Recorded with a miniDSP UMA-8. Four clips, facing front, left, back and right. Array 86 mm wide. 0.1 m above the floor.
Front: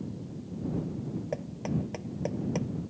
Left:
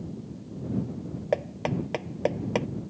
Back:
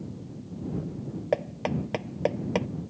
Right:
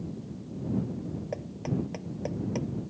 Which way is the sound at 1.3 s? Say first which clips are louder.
Left 7 dB, back 8 dB; 135° left.